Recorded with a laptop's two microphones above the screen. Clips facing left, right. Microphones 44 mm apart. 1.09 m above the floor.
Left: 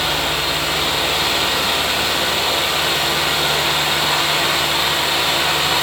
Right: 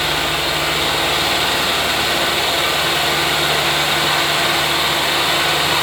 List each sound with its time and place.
0.0 s a fan: 5° right (ahead or behind), 1.1 m